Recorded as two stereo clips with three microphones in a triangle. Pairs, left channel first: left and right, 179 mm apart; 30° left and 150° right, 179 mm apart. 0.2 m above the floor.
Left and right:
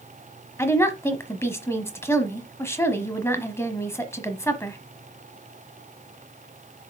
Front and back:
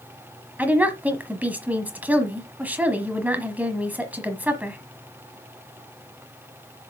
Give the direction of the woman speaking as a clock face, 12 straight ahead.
7 o'clock.